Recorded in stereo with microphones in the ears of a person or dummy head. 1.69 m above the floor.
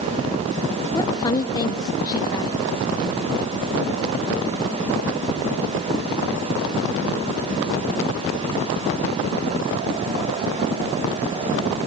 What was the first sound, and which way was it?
A woman speaking, 20° left (ahead or behind).